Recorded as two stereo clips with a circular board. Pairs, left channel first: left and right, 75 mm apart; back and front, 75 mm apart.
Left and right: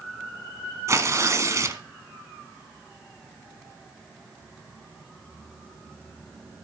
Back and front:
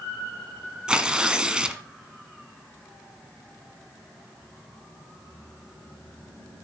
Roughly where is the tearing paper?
Right.